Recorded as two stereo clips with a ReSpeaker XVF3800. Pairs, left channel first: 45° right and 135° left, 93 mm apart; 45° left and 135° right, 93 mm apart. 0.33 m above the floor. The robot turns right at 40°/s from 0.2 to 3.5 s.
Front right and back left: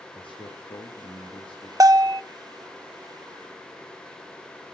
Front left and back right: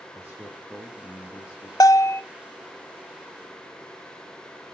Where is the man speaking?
65° right, 4 m; by 1.7 s 5° right, 4 m.